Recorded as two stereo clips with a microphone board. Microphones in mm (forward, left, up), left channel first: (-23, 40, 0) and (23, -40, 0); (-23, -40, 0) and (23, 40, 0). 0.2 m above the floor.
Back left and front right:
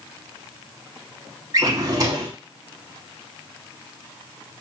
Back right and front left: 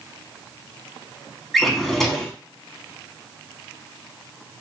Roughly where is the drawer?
Ahead right.